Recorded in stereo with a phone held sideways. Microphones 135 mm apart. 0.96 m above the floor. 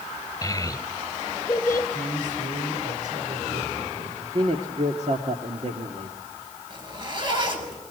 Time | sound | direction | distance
0.4 | a child speaking | 25° left (ahead or behind) | 3.5 m
1.9 | a man speaking | 70° right (ahead or behind) | 3.5 m
4.2 | a man speaking | 55° right (ahead or behind) | 1.8 m
6.7 | a zipper | 35° right (ahead or behind) | 6.5 m